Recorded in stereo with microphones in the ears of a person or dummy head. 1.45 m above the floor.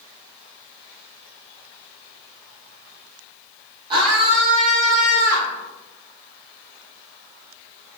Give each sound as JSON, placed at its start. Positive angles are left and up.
{"t": 3.9, "sound": "a scream", "side_deg": -30, "distance_m": 4.0}